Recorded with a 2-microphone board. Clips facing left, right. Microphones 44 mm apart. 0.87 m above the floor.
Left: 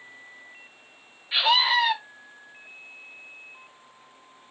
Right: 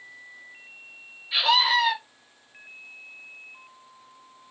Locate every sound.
1.3 s a scream: 30° left (ahead or behind), 1.5 m